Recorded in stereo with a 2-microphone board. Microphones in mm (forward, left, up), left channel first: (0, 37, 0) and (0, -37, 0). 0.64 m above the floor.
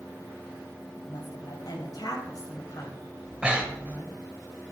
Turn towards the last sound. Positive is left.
turn(degrees=-15)  # may be behind; listen again after turning